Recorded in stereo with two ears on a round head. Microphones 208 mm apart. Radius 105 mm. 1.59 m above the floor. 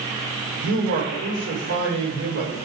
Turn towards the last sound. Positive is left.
turn(degrees=-60)  # may be behind; listen again after turning